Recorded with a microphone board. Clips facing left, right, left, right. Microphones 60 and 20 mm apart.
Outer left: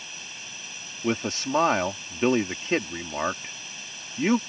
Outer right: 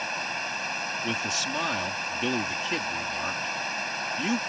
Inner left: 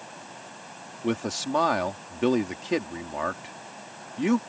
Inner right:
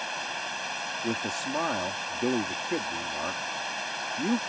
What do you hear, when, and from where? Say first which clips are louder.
0.0 s running water: outer right 12 dB, inner right 10 dB; 60° right (ahead or behind)
1.0 s a man speaking: outer left 7 dB, inner left 5 dB; 40° left (ahead or behind)